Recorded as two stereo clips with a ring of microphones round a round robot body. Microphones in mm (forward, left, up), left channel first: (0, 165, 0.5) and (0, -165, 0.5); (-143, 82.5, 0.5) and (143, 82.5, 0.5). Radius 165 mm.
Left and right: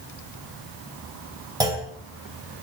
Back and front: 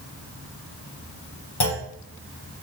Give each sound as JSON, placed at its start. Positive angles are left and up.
{"t": 1.6, "sound": "a clunk", "azimuth_deg": -165, "distance_m": 2.0}